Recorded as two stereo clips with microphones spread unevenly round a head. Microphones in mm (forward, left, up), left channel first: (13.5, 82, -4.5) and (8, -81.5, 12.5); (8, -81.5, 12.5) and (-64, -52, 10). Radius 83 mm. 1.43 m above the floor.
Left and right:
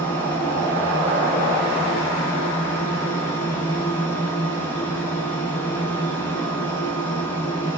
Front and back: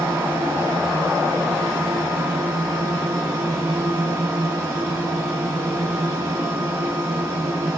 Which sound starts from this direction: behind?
A fan, at 0.0 s.